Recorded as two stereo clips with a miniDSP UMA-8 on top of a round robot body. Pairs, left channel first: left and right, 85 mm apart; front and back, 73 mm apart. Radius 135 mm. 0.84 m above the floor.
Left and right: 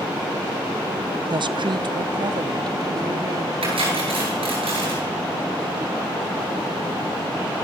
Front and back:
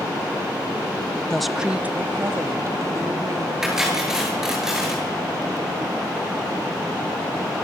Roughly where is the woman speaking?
Right.